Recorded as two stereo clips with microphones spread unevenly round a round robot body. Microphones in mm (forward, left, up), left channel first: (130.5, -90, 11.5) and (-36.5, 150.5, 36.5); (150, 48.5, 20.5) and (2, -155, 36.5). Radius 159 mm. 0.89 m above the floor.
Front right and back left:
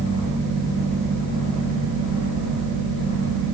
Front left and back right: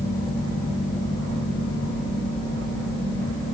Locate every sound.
Only background noise.